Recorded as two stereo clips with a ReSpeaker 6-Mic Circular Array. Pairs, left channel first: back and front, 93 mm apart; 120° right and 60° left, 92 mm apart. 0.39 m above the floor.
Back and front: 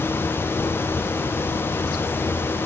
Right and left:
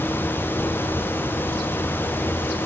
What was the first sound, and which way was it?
Only background noise.